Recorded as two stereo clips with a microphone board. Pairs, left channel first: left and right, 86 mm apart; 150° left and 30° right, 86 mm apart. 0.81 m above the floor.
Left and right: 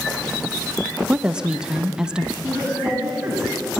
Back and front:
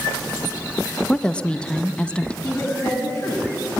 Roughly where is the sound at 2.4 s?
Behind.